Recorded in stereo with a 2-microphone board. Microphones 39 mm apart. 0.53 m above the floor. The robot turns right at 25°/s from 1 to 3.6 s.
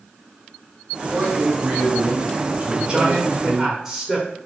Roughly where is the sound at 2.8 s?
Right.